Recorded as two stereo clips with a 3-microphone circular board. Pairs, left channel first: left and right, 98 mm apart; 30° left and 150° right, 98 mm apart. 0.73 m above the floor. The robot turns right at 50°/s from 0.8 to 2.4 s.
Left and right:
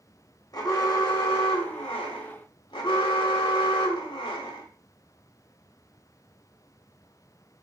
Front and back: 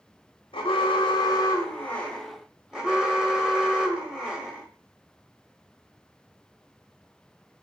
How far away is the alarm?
About 1.2 m.